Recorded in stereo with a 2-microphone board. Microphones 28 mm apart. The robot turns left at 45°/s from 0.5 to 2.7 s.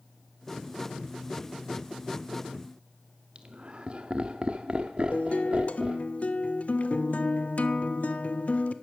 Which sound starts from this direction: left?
A guitar, at 5.1 s.